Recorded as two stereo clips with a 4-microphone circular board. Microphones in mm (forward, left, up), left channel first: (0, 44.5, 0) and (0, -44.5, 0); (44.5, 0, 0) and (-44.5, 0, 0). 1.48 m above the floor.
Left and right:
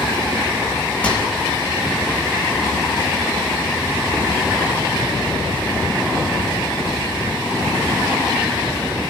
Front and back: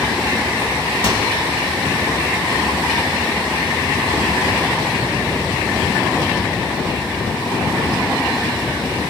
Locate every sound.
1.0 s a microwave: 15° left, 5.5 m